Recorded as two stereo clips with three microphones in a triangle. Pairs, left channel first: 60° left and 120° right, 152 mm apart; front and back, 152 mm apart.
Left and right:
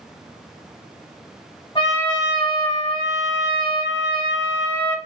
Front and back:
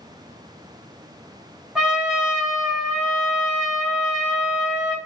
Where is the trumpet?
95° left, 1.1 m.